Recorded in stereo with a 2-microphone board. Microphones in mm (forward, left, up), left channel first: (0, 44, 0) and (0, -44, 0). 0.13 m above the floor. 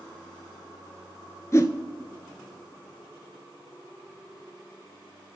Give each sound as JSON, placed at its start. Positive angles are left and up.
{"t": 1.5, "sound": "a whoosh", "side_deg": 35, "distance_m": 0.8}